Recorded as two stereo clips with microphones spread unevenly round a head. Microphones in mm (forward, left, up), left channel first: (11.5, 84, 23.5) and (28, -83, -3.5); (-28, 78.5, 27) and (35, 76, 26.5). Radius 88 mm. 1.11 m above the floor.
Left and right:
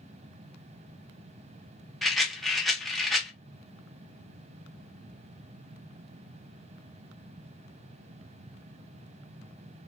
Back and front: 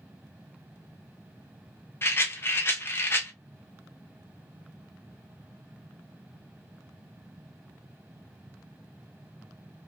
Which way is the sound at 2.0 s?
165° right.